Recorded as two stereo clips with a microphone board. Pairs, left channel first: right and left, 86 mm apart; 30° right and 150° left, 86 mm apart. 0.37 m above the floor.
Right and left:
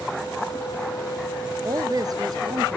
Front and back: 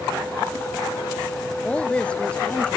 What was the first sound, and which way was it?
A woman speaking, 45° left.